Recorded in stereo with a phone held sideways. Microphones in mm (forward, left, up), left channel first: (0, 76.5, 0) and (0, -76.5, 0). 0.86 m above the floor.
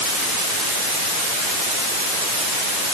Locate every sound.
Only background noise.